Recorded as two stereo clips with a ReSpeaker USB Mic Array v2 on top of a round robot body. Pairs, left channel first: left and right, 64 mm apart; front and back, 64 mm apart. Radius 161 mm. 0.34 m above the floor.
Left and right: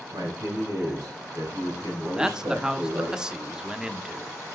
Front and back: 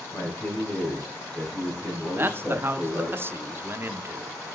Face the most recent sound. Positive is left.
turn(degrees=-160)